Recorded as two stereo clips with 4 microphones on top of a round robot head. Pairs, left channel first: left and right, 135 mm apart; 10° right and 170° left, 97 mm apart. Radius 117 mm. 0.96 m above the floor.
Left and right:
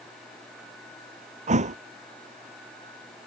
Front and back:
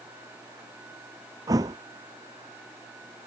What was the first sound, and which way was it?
A thud, 125° right.